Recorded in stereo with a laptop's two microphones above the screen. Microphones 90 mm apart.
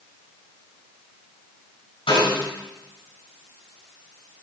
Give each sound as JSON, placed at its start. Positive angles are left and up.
{"t": 2.1, "sound": "a snare drum", "side_deg": 85, "distance_m": 5.0}